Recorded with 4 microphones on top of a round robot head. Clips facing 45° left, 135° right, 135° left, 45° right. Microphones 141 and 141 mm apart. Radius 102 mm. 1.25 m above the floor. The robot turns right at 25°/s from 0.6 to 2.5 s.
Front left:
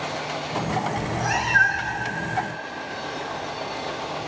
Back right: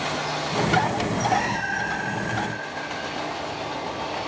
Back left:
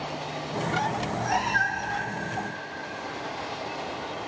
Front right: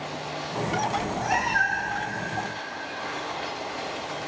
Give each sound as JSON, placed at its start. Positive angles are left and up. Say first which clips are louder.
{"t": 1.0, "sound": "a cat meowing", "louder": "back right 3 dB, front right 1 dB", "azimuth_deg": 35, "distance_m": 1.5}